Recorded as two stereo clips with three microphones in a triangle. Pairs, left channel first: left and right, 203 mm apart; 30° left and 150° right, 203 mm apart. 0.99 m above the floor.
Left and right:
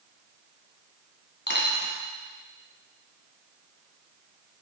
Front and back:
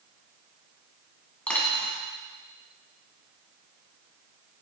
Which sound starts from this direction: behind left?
A dropped coin, at 1.5 s.